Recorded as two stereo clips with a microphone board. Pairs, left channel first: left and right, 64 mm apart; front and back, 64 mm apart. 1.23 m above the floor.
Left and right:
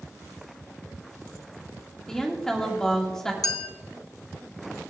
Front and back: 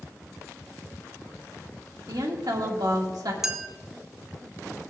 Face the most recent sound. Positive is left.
turn(degrees=95)